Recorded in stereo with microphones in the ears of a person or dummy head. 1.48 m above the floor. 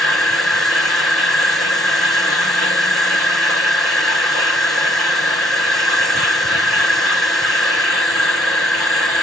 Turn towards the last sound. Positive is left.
turn(degrees=5)  # may be behind; listen again after turning